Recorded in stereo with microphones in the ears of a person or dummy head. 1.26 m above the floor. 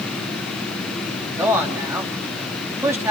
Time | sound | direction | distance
1.4 | a man speaking | 10° right (ahead or behind) | 3 m